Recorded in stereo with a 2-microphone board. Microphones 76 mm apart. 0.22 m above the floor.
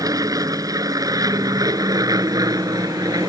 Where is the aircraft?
55° right (ahead or behind).